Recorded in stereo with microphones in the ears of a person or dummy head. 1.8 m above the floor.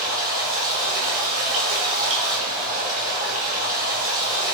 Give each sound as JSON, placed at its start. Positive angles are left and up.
{"t": 0.0, "sound": "running water", "side_deg": -40, "distance_m": 0.9}